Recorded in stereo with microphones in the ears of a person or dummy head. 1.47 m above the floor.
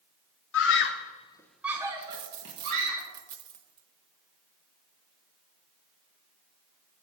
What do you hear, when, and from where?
0.5 s a scream: 70° left (ahead or behind), 1.1 m; by 3.0 s 45° right (ahead or behind), 2 m
2.0 s a dropped coin: 30° right (ahead or behind), 0.9 m